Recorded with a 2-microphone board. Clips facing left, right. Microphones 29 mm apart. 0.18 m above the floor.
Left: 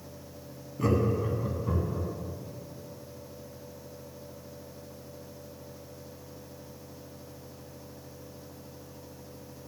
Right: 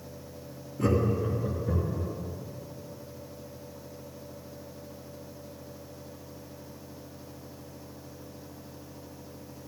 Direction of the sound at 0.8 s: 10° left (ahead or behind).